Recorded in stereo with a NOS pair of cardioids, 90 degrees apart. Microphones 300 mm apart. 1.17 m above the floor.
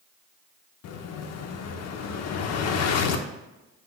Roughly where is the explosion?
Left.